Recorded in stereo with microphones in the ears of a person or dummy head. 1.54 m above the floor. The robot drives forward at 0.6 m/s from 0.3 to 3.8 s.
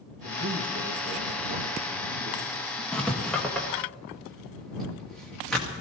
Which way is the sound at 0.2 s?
60° right (ahead or behind).